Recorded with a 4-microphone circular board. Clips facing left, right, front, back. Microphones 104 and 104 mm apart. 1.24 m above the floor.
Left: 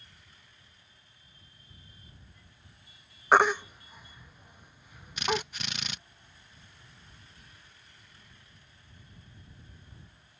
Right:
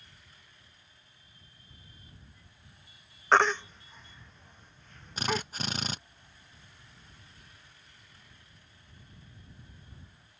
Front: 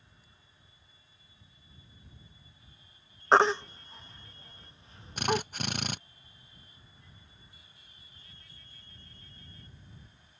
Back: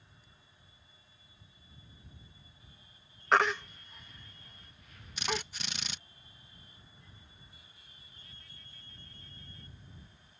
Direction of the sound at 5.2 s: 35° right.